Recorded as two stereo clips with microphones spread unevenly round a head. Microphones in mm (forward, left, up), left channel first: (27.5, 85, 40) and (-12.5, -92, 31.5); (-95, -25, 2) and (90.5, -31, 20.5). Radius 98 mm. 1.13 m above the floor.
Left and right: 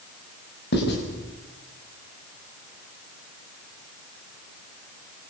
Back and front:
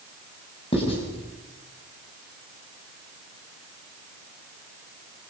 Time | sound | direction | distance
0.7 | writing | 115° left | 5.5 m